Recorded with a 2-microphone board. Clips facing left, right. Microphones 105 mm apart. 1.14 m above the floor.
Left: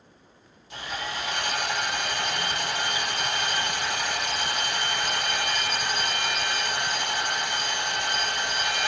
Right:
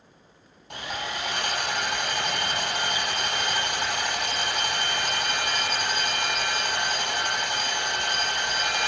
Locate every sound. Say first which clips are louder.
0.7 s sawing: right 1 dB; 60° right (ahead or behind), 7 m